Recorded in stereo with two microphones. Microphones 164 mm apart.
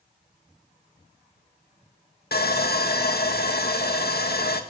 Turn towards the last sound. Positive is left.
turn(degrees=75)  # may be behind; listen again after turning